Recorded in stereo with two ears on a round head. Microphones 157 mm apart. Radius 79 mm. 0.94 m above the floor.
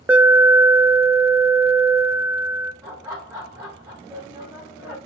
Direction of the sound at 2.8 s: 15° right (ahead or behind).